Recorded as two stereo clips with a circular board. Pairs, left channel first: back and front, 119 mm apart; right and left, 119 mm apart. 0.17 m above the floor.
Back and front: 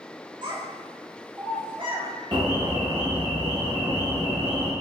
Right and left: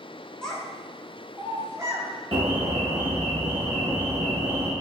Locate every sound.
0.4 s a child speaking: 10° right, 1.4 m; by 2.1 s 30° left, 1.8 m
2.3 s an alarm: 50° left, 1.6 m